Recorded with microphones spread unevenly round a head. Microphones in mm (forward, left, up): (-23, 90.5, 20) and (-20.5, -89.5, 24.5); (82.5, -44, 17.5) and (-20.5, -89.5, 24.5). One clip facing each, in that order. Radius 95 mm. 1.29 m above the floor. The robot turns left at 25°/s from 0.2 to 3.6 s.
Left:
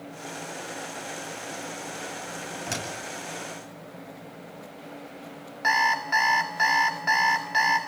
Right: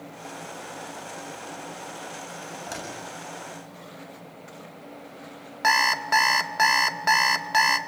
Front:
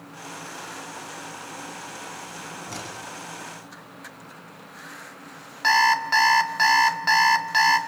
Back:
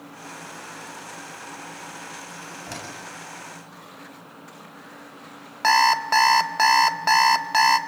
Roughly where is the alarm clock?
Behind right.